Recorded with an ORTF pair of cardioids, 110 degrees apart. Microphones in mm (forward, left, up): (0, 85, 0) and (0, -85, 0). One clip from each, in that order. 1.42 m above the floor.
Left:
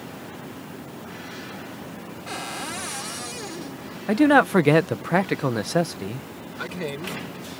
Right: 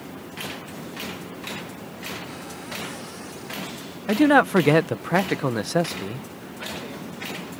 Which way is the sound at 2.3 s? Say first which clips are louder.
Left 4 dB; 60° left.